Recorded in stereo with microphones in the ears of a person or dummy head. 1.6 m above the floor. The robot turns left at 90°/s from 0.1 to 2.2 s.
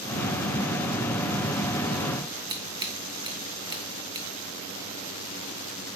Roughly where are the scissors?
Right.